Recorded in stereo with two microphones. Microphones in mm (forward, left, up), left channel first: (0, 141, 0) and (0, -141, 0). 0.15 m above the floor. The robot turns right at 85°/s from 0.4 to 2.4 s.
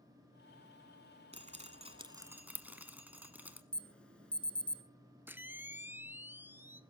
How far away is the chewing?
I don't hear chewing.